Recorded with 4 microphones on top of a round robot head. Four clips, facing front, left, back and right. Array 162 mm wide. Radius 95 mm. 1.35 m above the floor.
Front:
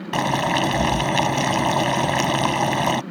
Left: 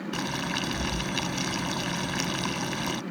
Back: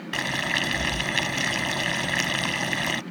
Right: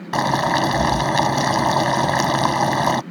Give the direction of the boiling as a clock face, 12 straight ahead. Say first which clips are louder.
Right 16 dB, front 9 dB; 2 o'clock.